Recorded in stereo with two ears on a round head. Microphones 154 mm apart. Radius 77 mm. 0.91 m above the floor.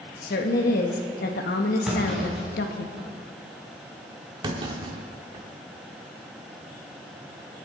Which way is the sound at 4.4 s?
30° right (ahead or behind).